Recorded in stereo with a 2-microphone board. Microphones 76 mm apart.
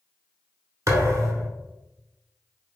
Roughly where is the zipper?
I don't hear a zipper.